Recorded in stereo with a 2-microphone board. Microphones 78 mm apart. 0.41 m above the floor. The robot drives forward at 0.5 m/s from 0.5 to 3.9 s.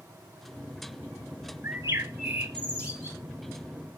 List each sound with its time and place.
1.6 s a bird: 30° right (ahead or behind), 0.9 m; by 3.2 s 15° right (ahead or behind), 1.6 m